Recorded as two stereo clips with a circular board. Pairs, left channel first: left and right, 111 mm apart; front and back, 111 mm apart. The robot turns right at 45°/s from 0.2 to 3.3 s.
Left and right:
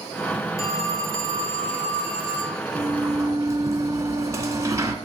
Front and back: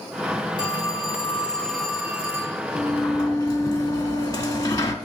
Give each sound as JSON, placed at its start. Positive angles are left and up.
{"t": 0.6, "sound": "a phone ringing", "azimuth_deg": 30, "distance_m": 1.4}
{"t": 2.8, "sound": "a sliding door", "azimuth_deg": -70, "distance_m": 1.0}